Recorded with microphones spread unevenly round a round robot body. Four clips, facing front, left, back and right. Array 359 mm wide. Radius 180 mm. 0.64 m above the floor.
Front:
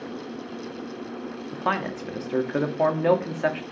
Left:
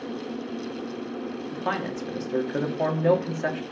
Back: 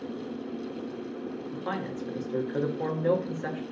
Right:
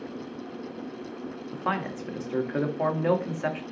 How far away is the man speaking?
About 1.7 m.